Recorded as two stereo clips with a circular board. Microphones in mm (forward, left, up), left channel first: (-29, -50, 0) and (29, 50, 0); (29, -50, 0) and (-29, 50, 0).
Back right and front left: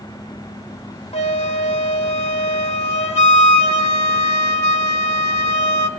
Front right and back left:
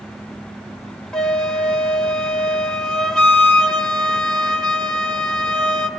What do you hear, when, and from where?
1.1 s a flute: 145° right, 1.4 m